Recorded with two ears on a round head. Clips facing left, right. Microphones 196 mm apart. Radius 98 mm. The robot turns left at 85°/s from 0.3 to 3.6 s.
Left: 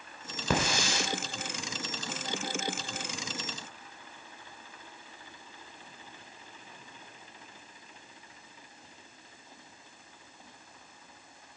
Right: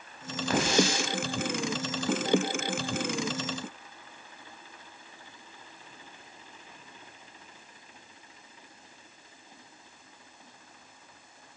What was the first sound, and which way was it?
A hiss, 70° left (ahead or behind).